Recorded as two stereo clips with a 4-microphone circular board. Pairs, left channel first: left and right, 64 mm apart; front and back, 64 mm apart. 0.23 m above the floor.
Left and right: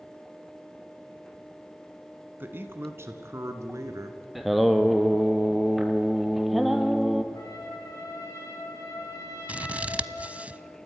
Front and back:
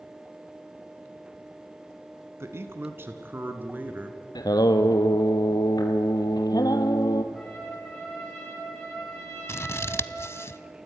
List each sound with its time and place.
2.4 s a man speaking: 140° right, 2.0 m; by 4.2 s 115° right, 2.5 m
4.3 s singing: straight ahead, 1.3 m
7.3 s a trumpet: 80° left, 6.5 m
9.5 s scissors: 30° right, 0.6 m